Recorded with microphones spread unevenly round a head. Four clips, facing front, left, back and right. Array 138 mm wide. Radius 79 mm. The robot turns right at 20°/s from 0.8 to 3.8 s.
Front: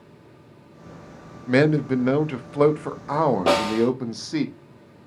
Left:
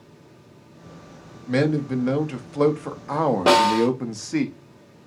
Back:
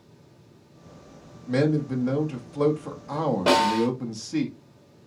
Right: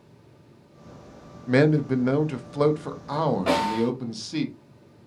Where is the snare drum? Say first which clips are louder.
Left 6 dB, front 1 dB; 75° left, 1.7 m; by 3.9 s 80° left, 1.7 m.